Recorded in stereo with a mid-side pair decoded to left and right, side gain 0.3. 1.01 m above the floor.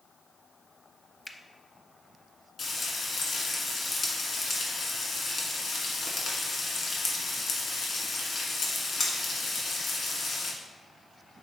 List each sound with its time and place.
1.2 s a finger snap: 15° left, 0.6 m
2.6 s frying: 70° left, 1.3 m